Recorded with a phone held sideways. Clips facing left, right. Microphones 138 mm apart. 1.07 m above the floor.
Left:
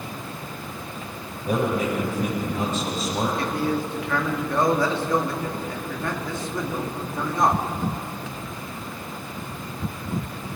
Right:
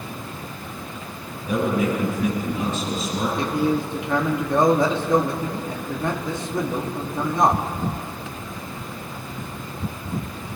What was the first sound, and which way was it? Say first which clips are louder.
A man speaking: right 2 dB; 60° left (ahead or behind).